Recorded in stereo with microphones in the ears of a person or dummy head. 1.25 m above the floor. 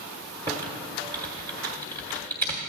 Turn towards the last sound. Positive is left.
turn(degrees=-25)  # may be behind; listen again after turning